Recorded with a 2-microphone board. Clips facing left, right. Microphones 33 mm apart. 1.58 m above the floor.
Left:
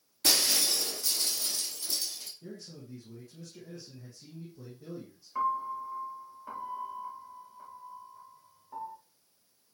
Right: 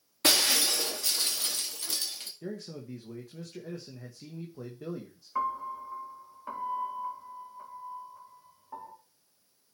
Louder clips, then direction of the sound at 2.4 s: Right 6 dB; 80° right.